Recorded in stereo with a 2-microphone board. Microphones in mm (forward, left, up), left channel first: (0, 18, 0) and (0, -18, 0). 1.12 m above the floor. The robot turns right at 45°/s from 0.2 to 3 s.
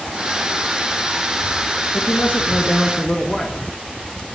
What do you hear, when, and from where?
1.9 s a man speaking: 105° left, 1.3 m; by 3.6 s 155° left, 1.3 m